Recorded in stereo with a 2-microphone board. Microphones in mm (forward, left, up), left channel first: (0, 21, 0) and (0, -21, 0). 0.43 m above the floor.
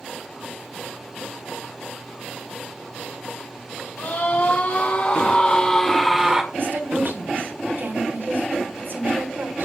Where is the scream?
55° left (ahead or behind), 3 m; by 6.4 s 15° right (ahead or behind), 1.5 m.